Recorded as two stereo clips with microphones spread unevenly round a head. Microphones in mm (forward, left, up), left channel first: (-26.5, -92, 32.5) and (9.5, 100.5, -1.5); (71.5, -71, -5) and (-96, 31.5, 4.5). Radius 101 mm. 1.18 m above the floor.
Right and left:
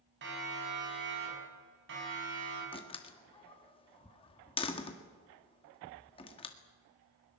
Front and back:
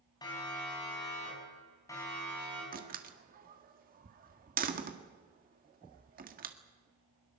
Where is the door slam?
165° right, 1.9 m.